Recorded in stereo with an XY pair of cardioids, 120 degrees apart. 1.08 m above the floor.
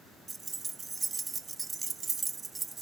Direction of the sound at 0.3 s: 25° right.